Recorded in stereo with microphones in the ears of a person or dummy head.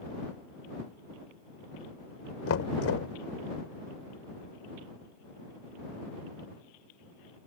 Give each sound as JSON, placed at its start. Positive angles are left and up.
{"t": 2.5, "sound": "knocking", "side_deg": 75}